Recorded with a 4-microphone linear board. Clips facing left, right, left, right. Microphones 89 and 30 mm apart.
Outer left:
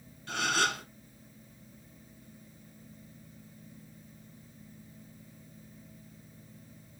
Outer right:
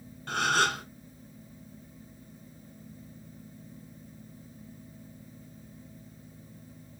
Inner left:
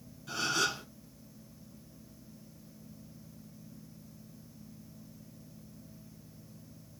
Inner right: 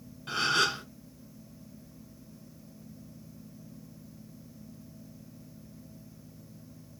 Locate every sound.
0.3 s a gasp: 40° right (ahead or behind), 1.3 m